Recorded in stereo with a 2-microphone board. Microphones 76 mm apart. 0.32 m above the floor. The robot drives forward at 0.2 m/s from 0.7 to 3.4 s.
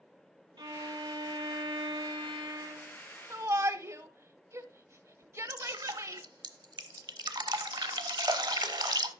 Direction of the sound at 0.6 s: 65° right (ahead or behind).